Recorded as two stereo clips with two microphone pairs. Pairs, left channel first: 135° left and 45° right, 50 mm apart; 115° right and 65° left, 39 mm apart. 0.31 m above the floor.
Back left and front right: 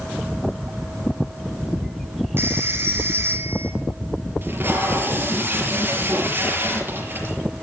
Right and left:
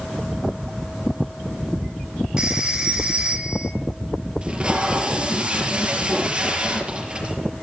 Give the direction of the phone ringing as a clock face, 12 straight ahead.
12 o'clock.